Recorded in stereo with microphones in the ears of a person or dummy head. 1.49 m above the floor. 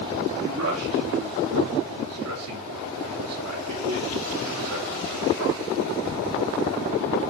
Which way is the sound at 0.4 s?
85° right.